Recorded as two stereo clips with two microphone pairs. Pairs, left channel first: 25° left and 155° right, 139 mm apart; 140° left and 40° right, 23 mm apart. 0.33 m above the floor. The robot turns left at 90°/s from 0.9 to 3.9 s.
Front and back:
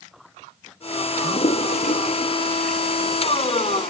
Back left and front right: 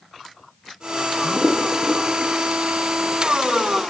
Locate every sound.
1.2 s a toilet flushing: 70° left; by 3.9 s 165° right